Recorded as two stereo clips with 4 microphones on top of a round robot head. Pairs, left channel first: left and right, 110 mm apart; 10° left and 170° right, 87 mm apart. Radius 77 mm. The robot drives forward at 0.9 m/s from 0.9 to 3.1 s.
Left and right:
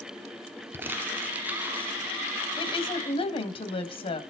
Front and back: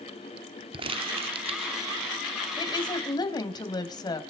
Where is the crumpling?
160° right, 1.2 m; by 1.9 s 170° right, 2.0 m.